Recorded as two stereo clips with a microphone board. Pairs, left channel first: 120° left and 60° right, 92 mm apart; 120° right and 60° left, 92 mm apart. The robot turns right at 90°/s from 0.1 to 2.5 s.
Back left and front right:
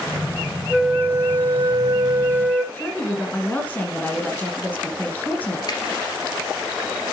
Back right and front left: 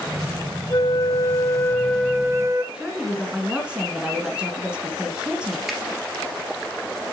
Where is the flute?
145° right, 0.8 m; by 2.6 s 15° left, 0.8 m.